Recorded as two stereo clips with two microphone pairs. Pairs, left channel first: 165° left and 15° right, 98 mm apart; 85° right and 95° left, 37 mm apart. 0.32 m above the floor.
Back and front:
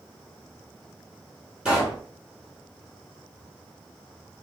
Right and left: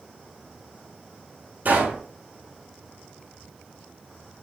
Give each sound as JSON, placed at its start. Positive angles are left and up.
{"t": 1.6, "sound": "a pop", "azimuth_deg": 65, "distance_m": 3.5}